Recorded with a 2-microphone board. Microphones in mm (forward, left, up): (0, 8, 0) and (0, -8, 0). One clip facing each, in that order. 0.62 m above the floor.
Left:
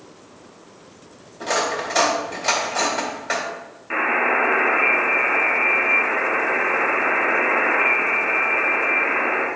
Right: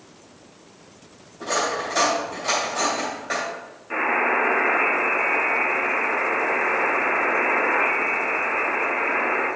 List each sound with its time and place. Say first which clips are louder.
1.4 s cutlery clinking: left 2 dB; 40° left (ahead or behind), 2.0 m
3.9 s a buzzer: left 2 dB; 30° left (ahead or behind), 2 m